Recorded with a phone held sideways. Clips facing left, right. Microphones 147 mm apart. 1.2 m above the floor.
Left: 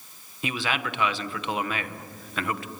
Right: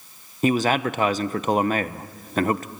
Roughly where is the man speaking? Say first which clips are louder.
Right 10 dB; right.